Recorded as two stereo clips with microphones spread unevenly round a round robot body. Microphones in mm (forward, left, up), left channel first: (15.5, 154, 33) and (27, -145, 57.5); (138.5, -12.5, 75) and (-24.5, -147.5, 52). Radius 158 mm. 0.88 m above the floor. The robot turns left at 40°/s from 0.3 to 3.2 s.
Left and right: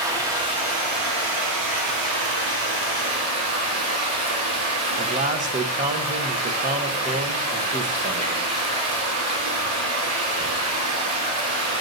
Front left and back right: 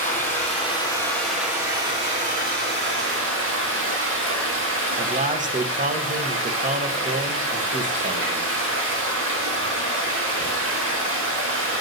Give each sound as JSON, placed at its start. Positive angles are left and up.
{"t": 0.0, "sound": "running water", "azimuth_deg": -10, "distance_m": 4.0}
{"t": 5.0, "sound": "a man speaking", "azimuth_deg": -145, "distance_m": 0.9}